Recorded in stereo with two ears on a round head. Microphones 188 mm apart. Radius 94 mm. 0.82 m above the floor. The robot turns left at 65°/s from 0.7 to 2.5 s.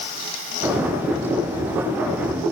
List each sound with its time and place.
Only background noise.